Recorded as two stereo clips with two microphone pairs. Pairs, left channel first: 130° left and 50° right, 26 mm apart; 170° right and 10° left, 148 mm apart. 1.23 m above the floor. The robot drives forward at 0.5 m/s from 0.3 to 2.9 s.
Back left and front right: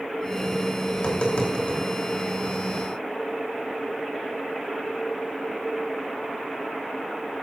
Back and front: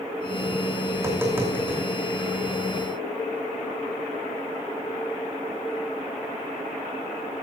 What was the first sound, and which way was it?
Tapping, 85° left.